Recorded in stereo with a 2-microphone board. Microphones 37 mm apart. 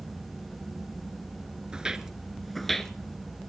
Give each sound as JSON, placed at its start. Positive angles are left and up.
{"t": 1.7, "sound": "footsteps", "side_deg": -25, "distance_m": 1.2}